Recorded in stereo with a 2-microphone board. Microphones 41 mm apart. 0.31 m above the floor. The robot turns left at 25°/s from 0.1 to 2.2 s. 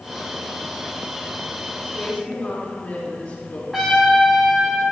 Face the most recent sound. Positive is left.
turn(degrees=-5)  # may be behind; listen again after turning